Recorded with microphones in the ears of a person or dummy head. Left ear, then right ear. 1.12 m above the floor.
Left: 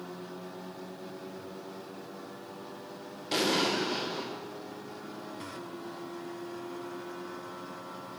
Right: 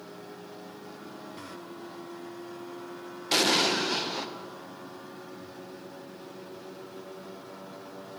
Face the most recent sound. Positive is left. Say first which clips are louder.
# right 4 dB
turn(degrees=-40)  # may be behind; listen again after turning